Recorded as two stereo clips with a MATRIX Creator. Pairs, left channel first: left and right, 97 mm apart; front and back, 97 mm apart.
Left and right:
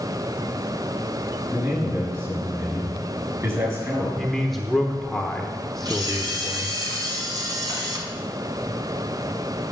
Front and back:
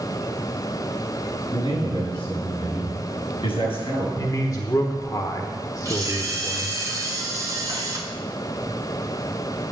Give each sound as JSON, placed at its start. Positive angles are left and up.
{"t": 1.5, "sound": "a man speaking", "azimuth_deg": -30, "distance_m": 6.5}
{"t": 4.2, "sound": "a man speaking", "azimuth_deg": 5, "distance_m": 1.0}
{"t": 5.8, "sound": "a camera shutter", "azimuth_deg": -130, "distance_m": 2.5}